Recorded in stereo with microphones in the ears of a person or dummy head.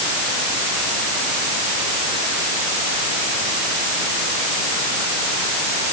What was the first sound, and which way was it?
Only background noise.